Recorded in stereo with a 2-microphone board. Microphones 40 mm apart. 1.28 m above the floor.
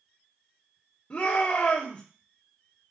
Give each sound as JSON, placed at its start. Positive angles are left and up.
{"t": 1.1, "sound": "a shout", "side_deg": 55, "distance_m": 1.4}